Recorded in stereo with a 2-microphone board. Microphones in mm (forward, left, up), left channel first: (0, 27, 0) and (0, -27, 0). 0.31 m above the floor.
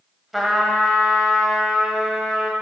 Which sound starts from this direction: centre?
A trumpet, at 0.3 s.